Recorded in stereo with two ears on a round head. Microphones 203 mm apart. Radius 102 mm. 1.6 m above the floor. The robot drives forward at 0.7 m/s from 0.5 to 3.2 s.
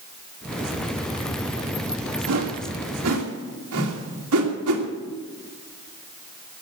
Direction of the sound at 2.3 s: 80° right.